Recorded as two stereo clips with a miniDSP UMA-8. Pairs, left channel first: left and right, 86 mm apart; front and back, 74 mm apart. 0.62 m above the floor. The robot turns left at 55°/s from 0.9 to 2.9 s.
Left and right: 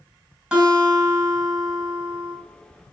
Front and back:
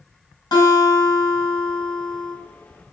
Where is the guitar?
10° right, 3 m; by 2.4 s 90° right, 3 m.